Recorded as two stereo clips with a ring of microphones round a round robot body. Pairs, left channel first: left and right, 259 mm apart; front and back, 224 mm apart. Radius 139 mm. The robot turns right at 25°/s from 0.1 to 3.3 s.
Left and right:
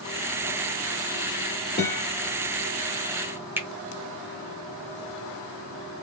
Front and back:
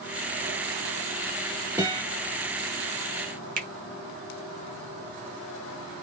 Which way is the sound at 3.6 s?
170° right.